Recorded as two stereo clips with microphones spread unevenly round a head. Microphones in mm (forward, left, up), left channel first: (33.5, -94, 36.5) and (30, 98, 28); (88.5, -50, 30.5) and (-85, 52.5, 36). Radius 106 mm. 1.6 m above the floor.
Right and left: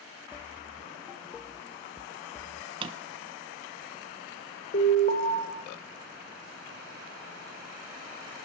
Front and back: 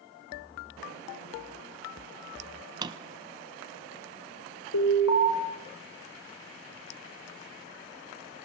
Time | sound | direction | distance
2.8 | a drawer | 120° left | 0.7 m
4.7 | an alarm | 45° right | 7.5 m